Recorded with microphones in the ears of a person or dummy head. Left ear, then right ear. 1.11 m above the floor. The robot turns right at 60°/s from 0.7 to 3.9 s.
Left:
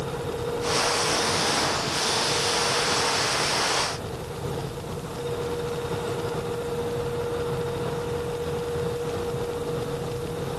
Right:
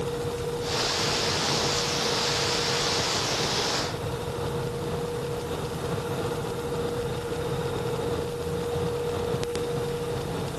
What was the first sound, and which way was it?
Only background noise.